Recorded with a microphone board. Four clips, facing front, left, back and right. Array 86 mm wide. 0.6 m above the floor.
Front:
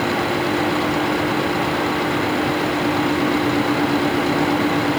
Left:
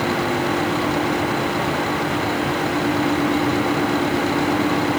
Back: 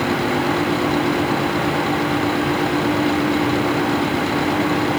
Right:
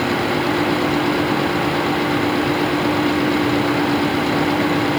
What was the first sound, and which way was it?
Only background noise.